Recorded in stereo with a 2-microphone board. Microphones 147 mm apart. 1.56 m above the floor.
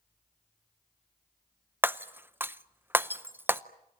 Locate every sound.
1.8 s breaking glass: 15° right (ahead or behind), 0.6 m